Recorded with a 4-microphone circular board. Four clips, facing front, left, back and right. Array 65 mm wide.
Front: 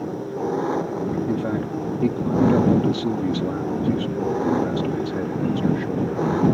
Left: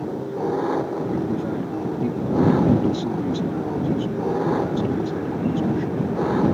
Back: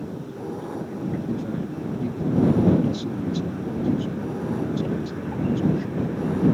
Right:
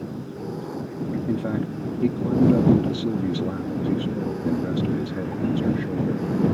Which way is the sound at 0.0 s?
50° left.